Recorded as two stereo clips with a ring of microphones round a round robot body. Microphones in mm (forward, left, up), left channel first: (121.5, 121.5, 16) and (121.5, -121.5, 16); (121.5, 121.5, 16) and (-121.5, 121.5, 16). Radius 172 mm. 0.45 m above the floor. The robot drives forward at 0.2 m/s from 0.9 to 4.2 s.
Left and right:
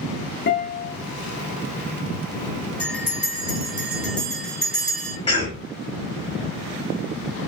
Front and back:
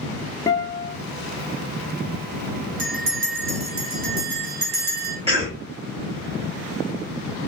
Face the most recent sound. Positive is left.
turn(degrees=140)